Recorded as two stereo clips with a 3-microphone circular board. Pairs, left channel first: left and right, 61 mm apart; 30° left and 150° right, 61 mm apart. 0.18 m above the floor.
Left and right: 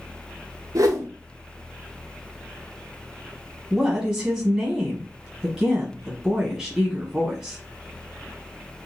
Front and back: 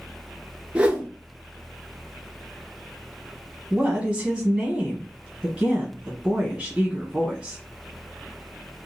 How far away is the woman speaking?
About 1.0 m.